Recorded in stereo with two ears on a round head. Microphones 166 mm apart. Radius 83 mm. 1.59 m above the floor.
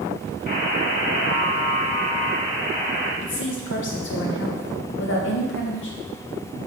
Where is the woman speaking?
70° left (ahead or behind), 1.6 m.